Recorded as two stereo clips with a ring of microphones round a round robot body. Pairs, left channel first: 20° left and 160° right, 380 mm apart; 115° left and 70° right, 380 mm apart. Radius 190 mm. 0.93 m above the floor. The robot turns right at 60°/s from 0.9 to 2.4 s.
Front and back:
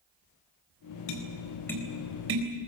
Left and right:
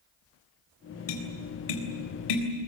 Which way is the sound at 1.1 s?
70° left.